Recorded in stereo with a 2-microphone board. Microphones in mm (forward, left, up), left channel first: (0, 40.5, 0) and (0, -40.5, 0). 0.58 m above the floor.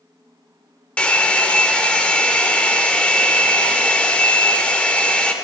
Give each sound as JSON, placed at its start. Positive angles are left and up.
{"t": 1.0, "sound": "a hair dryer", "side_deg": 15, "distance_m": 0.7}